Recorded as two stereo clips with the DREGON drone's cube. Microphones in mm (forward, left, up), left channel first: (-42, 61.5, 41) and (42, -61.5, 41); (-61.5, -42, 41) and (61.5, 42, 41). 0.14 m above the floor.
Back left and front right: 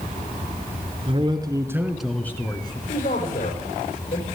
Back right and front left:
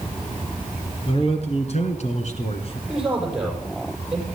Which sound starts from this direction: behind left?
A man speaking, at 2.9 s.